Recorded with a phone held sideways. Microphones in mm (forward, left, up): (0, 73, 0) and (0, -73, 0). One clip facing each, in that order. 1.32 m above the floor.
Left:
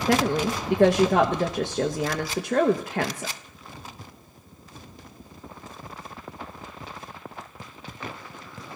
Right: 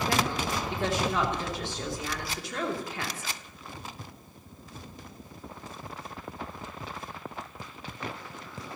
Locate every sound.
0.1 s a woman speaking: 75° left (ahead or behind), 1.0 m